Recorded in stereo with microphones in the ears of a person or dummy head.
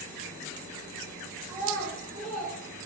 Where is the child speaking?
15° left (ahead or behind), 1.5 m; by 2.6 s 10° right (ahead or behind), 1.6 m.